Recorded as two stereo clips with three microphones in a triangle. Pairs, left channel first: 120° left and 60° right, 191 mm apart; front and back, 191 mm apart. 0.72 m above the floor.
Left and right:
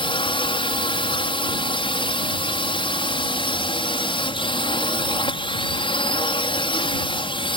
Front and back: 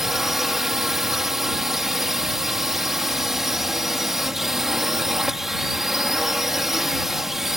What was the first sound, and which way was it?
A drone, 95° left.